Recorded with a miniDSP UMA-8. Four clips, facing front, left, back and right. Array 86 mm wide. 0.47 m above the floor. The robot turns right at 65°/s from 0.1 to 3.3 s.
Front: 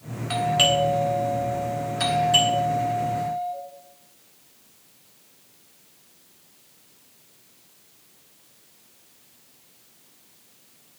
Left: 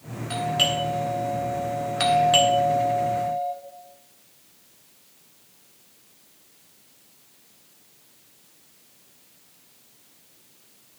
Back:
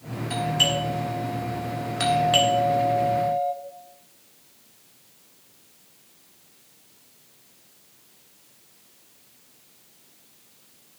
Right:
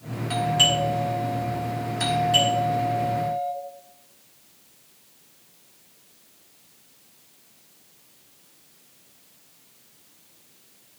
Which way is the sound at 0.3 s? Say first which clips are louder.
Right 2 dB, front 4 dB; straight ahead.